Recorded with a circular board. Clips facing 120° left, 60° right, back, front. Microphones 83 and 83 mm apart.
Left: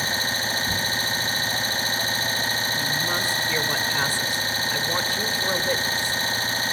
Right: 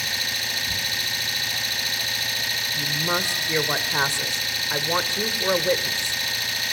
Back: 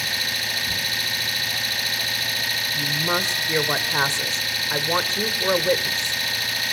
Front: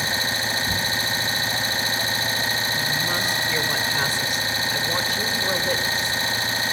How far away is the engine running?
About 0.9 m.